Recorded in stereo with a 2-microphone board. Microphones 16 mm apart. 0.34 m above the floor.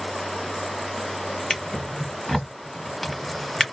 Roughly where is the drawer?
Centre.